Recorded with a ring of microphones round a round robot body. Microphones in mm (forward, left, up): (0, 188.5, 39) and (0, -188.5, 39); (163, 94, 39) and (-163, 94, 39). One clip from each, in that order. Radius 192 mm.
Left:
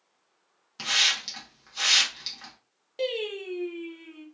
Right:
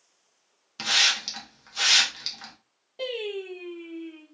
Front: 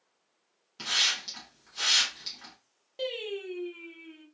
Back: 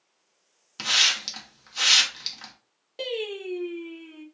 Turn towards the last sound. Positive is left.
turn(degrees=115)